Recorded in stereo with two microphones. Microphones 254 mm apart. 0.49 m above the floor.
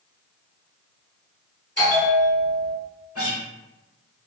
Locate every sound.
1.8 s a bell: 45° left (ahead or behind), 1.8 m
3.1 s a guitar: 65° left (ahead or behind), 1.1 m